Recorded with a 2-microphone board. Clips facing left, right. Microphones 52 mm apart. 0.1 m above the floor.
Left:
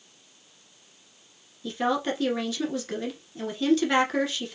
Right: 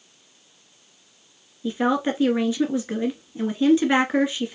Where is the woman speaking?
20° right (ahead or behind), 1.4 m.